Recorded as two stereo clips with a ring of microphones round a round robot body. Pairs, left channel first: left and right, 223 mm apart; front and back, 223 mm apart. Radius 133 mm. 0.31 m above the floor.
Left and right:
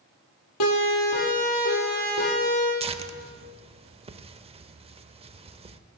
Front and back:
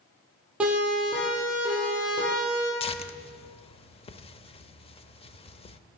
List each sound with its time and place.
0.6 s a siren: 95° left, 8.5 m; by 2.7 s 105° left, 9 m
2.8 s tearing paper: 45° right, 0.9 m